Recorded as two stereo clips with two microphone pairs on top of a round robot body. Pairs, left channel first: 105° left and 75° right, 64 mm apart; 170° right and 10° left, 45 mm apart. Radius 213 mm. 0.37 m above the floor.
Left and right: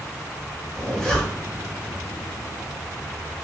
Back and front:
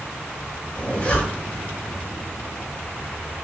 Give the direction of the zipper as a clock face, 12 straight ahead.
6 o'clock.